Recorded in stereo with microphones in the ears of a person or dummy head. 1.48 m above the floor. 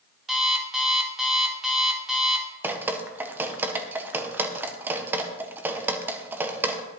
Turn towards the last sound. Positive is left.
turn(degrees=-10)  # may be behind; listen again after turning